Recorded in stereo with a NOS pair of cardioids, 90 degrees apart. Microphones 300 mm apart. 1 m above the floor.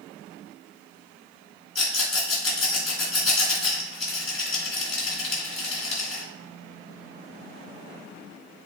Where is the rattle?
50° left, 2.5 m.